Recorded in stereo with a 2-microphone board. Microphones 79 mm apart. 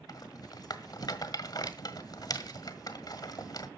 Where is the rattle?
55° left (ahead or behind), 1.5 m.